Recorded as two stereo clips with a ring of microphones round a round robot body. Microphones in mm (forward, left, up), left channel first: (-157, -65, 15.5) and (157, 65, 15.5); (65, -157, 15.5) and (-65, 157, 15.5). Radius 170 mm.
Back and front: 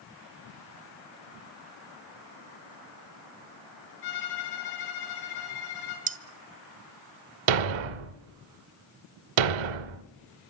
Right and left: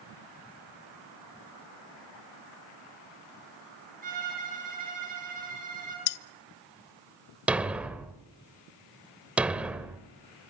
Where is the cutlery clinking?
45° right, 0.8 m.